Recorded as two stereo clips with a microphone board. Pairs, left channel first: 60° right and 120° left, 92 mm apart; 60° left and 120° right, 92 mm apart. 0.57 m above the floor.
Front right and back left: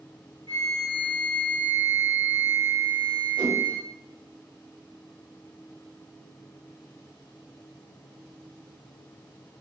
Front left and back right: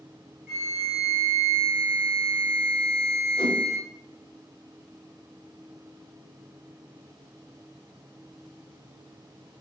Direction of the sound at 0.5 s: 45° right.